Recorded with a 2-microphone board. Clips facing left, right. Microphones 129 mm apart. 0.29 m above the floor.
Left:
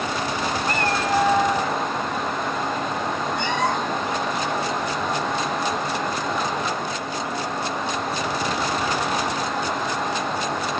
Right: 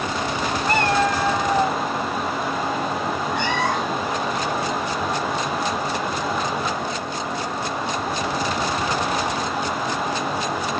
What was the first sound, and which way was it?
A cat meowing, 80° right.